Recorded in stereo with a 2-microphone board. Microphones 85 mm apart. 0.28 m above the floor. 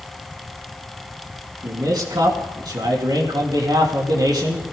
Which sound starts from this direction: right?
A man speaking, at 1.6 s.